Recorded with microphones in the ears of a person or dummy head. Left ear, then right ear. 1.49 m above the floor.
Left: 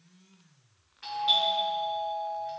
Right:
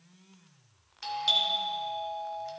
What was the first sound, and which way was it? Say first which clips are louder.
A doorbell: left 1 dB; 85° right.